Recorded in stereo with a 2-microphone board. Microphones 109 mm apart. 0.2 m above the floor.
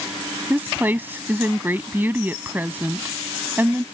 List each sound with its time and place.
0.5 s a woman speaking: 20° right (ahead or behind)